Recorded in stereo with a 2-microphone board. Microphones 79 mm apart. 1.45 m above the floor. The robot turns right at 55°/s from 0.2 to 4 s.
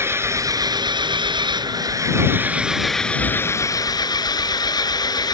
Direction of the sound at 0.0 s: 145° right.